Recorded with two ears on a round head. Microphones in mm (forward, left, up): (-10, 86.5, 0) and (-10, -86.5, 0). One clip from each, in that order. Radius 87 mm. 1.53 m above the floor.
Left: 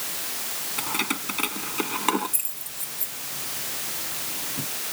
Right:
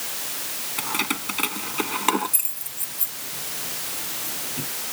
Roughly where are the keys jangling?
Centre.